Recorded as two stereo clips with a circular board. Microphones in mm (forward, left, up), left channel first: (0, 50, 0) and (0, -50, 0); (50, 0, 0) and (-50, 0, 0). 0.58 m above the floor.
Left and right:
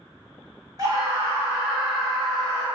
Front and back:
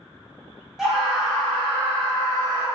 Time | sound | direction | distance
0.8 | a scream | 95° right | 1.2 m